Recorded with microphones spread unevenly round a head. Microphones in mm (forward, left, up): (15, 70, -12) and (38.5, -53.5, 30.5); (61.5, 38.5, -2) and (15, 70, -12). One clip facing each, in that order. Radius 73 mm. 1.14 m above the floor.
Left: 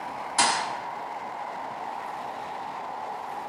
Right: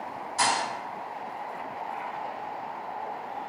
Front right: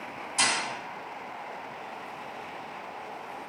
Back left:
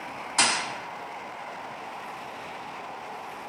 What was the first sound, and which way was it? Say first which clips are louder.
A thud: left 1 dB, back left 2 dB; 135° left.